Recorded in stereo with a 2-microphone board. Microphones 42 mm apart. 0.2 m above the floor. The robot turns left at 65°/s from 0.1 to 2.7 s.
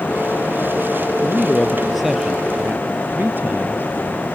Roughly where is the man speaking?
Ahead left.